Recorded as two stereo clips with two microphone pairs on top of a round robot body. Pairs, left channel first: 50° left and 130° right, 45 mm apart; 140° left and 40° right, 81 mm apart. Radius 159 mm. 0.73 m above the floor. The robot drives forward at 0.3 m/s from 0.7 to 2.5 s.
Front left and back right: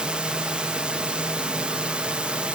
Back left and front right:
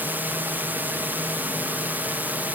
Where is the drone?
75° right; by 2.6 s 80° right.